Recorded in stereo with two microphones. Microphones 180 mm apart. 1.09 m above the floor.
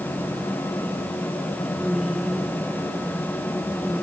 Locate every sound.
1.8 s a woman speaking: centre (ahead or behind); by 4.0 s 5° right (ahead or behind)